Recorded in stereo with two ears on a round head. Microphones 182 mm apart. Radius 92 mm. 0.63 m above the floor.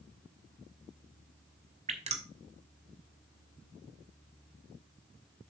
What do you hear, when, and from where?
1.9 s dripping: 35° right (ahead or behind), 1.6 m